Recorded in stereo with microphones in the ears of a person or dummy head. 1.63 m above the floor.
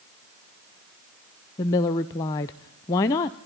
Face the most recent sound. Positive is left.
turn(degrees=15)  # may be behind; listen again after turning